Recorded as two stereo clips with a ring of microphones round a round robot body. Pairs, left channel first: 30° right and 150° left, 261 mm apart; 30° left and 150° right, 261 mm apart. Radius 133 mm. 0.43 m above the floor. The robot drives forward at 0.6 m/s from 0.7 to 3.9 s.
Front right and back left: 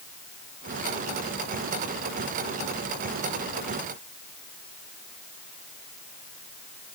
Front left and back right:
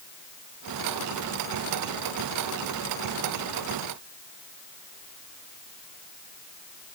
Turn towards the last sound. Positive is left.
No sound to turn to.